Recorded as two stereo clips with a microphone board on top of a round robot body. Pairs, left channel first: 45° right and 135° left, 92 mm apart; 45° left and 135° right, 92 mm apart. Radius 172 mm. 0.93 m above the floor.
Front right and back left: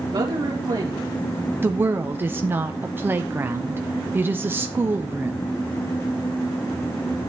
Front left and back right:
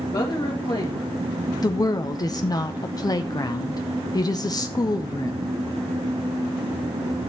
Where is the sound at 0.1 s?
90° left, 2 m.